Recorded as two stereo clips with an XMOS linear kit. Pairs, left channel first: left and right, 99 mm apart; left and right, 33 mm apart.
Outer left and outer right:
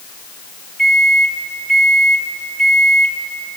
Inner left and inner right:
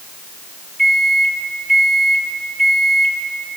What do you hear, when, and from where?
0.8 s a microwave: 5° left (ahead or behind), 3 m